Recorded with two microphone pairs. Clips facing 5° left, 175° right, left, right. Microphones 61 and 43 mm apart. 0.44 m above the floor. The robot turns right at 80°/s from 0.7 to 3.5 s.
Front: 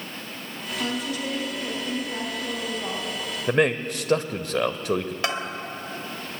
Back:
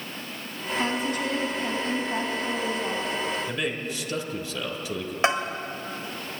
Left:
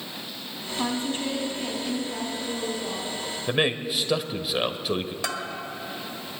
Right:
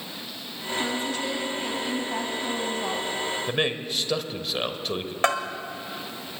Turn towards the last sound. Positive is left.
turn(degrees=-115)